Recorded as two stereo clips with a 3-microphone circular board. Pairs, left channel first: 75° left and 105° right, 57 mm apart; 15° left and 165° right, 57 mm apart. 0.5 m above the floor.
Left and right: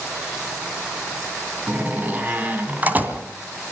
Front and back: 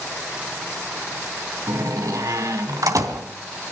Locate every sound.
1.7 s a door slam: 165° right, 3 m